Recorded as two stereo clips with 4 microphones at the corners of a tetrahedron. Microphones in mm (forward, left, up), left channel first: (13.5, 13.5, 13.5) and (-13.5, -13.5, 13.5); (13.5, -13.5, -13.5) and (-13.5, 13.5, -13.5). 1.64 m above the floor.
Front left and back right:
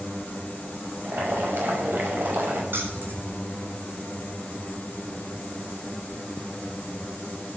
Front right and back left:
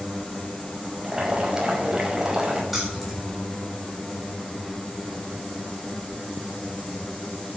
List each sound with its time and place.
1.0 s boiling: 150° right, 5 m
2.7 s keys jangling: 135° right, 7.5 m